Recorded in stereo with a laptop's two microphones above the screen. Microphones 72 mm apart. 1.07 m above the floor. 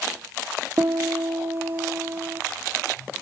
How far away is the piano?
About 0.8 m.